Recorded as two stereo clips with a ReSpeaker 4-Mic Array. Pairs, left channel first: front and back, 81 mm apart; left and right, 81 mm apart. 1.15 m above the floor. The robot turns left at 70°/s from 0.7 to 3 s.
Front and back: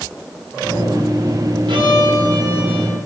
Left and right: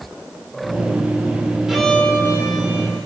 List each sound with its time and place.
1.7 s a violin: 175° right, 2.5 m; by 3.0 s 90° left, 2.5 m